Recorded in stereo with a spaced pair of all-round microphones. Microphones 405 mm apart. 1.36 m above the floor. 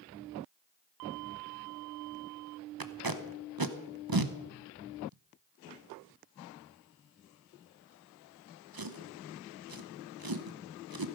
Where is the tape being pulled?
60° right (ahead or behind), 0.9 m.